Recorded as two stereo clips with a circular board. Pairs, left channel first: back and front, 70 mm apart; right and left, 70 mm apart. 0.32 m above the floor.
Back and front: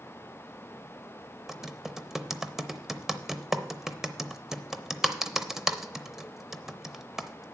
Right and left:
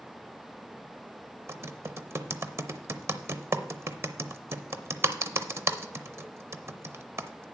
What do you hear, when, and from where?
1.5 s typing on a keyboard: 80° left, 0.6 m